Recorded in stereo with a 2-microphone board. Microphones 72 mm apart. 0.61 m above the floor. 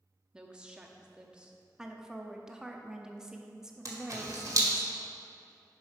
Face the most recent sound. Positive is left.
turn(degrees=-50)  # may be behind; listen again after turning